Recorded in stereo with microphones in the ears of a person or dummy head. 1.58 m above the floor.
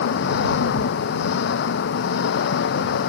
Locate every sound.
0.0 s an engine running: 70° left (ahead or behind)